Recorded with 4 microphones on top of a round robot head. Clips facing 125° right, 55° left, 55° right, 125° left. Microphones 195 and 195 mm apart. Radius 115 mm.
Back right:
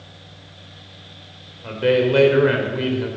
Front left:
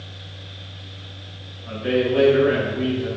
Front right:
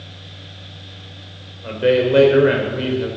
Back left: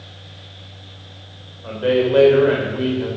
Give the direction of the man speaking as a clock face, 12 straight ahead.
4 o'clock.